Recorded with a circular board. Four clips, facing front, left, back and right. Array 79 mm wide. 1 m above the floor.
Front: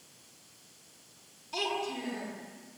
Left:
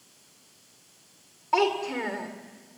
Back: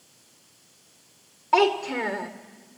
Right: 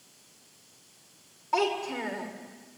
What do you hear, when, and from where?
1.5 s a child speaking: 165° left, 2.5 m